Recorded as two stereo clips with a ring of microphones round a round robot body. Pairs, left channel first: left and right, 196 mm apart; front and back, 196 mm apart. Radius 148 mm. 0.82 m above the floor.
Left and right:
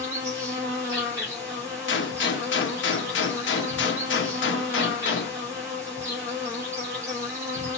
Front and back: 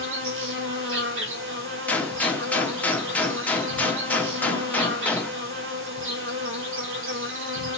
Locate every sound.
0.0 s an insect: 170° right, 2.0 m
1.9 s a gunshot: 85° left, 1.1 m